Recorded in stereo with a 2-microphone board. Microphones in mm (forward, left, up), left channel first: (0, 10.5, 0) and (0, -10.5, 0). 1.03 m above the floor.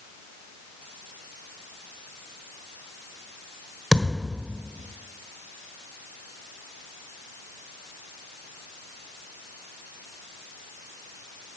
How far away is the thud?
About 1.4 m.